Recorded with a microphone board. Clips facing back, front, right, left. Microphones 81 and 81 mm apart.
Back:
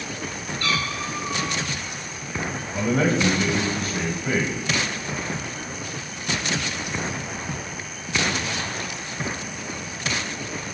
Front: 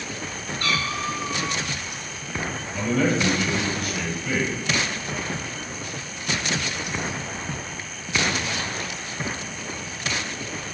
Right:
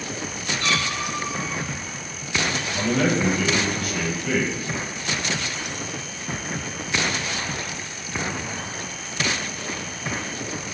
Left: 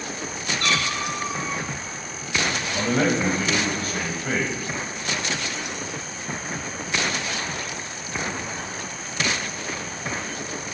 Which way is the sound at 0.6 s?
50° left.